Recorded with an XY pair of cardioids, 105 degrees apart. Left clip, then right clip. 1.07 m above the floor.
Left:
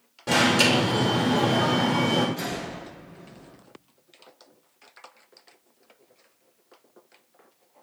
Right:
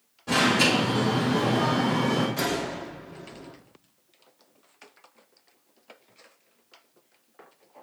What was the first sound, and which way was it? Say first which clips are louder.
An alarm: left 2 dB; 70° left.